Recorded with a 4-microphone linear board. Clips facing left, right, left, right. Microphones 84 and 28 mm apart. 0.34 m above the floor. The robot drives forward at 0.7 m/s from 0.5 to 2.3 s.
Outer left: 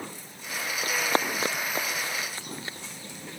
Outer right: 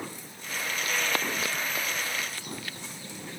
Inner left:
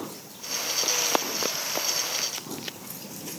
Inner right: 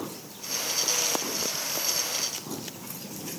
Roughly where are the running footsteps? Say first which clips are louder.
Outer left 4 dB, inner left 5 dB; left.